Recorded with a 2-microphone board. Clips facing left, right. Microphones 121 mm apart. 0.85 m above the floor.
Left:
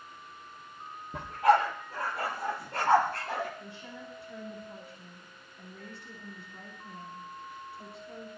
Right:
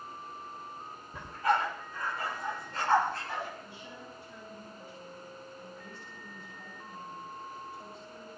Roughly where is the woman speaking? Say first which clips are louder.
Left 2 dB; left.